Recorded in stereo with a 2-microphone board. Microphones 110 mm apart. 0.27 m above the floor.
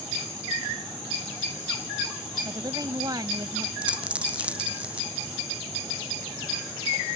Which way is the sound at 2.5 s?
40° right (ahead or behind).